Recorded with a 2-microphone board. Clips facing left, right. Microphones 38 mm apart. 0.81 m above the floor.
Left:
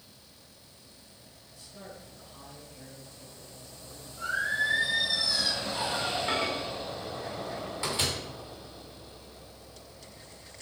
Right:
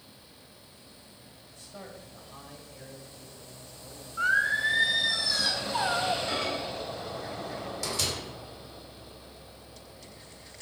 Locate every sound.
1.5 s a man speaking: 55° right (ahead or behind), 5.5 m; by 4.9 s 10° right (ahead or behind), 3.5 m
4.2 s singing: 65° right (ahead or behind), 3 m
6.3 s a microwave: 30° left (ahead or behind), 2.5 m